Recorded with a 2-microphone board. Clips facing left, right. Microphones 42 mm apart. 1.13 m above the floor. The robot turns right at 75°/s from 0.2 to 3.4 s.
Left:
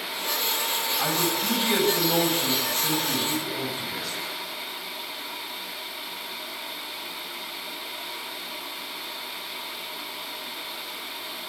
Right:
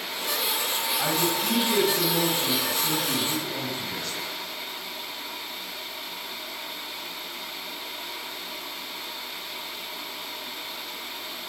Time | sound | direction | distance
1.0 | a man speaking | 5° right | 8 m